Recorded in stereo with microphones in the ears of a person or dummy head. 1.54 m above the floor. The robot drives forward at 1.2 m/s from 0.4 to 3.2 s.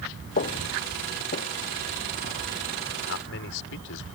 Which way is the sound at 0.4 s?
40° left (ahead or behind).